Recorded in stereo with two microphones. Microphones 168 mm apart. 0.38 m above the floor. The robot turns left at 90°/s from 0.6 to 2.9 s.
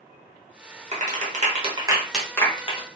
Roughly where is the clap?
Right.